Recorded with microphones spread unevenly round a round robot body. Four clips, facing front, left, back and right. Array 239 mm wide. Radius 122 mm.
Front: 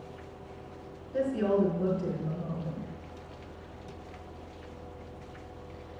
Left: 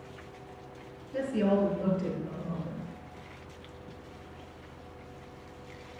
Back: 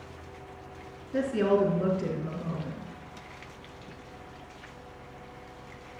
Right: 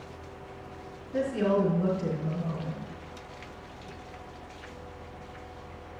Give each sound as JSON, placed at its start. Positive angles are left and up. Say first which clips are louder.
{"t": 1.1, "sound": "a woman speaking", "louder": "right 1 dB, back 2 dB", "azimuth_deg": -175, "distance_m": 4.5}